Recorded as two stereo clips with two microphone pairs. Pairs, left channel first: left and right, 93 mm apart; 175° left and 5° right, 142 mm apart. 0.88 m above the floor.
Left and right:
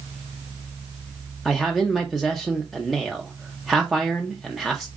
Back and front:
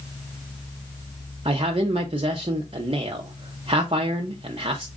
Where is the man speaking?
Straight ahead, 0.8 m.